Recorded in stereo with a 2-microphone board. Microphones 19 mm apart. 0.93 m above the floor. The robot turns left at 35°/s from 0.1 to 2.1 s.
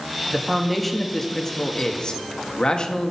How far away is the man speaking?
About 1.1 m.